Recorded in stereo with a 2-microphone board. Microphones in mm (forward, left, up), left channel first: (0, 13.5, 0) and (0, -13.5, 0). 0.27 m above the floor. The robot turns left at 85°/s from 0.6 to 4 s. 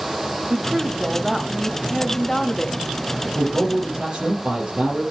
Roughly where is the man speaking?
Right.